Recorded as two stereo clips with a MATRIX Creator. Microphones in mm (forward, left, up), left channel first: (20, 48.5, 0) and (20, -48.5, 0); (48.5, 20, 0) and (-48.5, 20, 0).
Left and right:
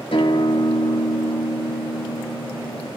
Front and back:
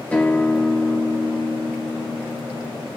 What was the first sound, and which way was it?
A guitar, 75° left.